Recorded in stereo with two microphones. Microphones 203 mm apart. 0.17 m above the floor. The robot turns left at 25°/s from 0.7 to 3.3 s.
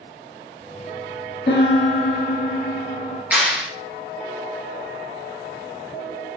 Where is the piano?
95° left, 2.5 m; by 3.2 s 50° left, 2.5 m.